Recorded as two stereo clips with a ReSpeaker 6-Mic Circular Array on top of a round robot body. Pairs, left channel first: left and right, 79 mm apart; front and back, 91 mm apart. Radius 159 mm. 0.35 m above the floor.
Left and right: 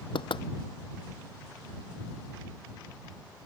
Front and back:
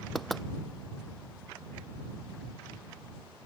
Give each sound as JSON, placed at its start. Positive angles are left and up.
{"t": 0.1, "sound": "knocking", "azimuth_deg": 90}